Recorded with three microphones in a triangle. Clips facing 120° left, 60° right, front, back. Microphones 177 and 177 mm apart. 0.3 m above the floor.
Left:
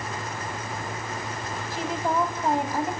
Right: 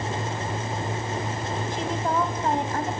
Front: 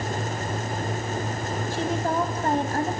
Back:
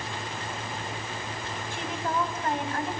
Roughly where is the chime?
I don't hear a chime.